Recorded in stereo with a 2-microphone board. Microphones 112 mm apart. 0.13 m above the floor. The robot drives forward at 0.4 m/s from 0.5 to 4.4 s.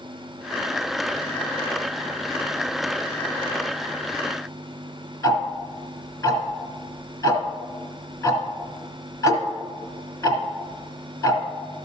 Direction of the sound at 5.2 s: 25° left (ahead or behind).